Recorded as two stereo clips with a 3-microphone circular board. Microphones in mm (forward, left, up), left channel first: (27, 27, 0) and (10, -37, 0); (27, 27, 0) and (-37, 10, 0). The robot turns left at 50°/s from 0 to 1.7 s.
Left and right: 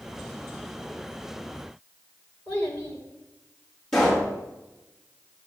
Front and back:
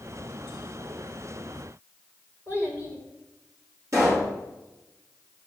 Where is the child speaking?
135° left, 1.8 m.